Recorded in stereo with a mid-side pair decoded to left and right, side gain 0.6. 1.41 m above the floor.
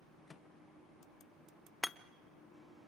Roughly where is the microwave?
Ahead.